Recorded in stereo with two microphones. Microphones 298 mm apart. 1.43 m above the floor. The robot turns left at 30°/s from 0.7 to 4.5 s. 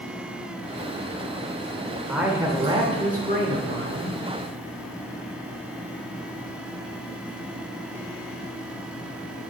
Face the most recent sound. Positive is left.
turn(degrees=-75)